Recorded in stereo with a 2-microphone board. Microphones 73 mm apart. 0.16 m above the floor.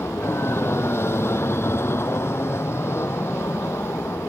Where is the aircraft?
35° left (ahead or behind).